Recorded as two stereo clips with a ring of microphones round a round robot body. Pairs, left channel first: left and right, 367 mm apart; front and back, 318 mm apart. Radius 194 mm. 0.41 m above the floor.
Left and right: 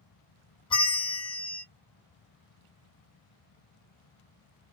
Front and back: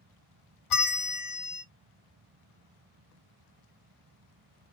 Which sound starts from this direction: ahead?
A bell, at 0.7 s.